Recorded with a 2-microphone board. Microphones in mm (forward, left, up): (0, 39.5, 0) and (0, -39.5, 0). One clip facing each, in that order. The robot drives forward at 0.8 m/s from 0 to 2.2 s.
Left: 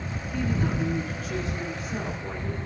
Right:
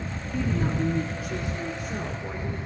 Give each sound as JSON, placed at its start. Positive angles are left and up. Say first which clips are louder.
{"t": 0.3, "sound": "a woman speaking", "louder": "right 1 dB", "side_deg": -10, "distance_m": 2.5}